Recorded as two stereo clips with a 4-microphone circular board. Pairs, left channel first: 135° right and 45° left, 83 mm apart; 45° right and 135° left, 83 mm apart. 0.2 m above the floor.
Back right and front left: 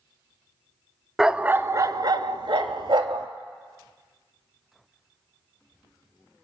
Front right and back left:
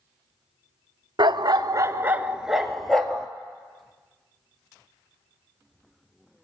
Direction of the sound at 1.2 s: 130° left.